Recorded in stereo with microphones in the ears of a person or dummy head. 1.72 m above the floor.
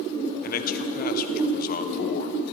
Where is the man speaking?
50° left (ahead or behind), 1.1 m.